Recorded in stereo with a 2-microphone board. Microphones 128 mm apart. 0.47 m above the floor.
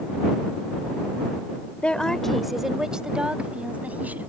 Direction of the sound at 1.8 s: 10° left (ahead or behind).